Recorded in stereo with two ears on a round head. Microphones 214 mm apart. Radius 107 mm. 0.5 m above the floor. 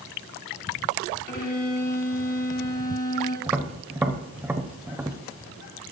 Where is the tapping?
10° right (ahead or behind), 0.7 m.